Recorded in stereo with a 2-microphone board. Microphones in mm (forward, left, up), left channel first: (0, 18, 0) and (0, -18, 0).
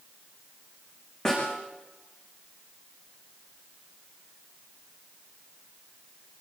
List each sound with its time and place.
1.2 s a snare drum: 20° left (ahead or behind), 9.5 m